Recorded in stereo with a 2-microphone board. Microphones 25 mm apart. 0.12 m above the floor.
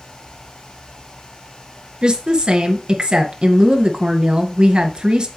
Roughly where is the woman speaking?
Right.